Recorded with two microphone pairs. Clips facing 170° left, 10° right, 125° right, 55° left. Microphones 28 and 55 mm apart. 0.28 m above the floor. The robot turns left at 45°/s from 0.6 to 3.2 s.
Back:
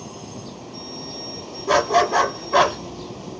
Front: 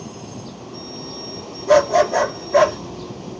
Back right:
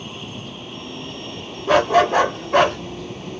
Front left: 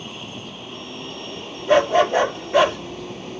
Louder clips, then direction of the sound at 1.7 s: Front 3 dB, back right 1 dB; 105° right.